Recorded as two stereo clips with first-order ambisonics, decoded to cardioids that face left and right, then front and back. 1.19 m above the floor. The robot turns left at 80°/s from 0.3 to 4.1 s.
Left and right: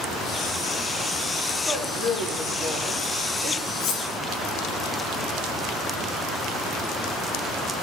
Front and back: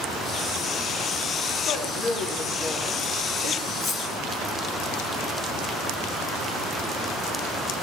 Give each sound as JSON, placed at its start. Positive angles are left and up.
{"t": 1.6, "sound": "a woman speaking", "azimuth_deg": 0, "distance_m": 9.5}
{"t": 3.8, "sound": "cutlery clinking", "azimuth_deg": 90, "distance_m": 4.0}